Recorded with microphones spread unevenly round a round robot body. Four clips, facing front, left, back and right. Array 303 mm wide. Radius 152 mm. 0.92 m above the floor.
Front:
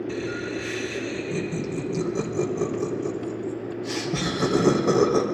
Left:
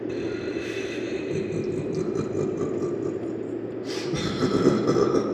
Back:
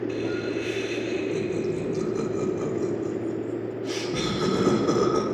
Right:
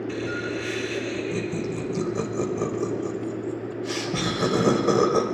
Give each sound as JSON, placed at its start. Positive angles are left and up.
{"t": 0.1, "sound": "laughter", "azimuth_deg": 60, "distance_m": 3.0}